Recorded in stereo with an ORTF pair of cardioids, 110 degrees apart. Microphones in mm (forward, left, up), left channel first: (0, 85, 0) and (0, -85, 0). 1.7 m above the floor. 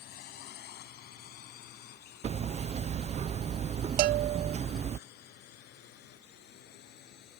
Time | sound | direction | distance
0.0 | a drone | 65° left | ?
2.2 | hammering | 40° right | ?
4.0 | a bell | 60° right | ?